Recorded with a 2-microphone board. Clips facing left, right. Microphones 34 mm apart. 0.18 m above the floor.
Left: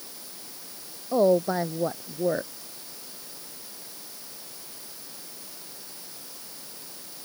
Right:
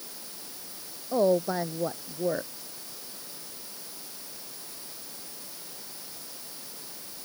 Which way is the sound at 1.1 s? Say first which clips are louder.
Left 3 dB; 10° left (ahead or behind).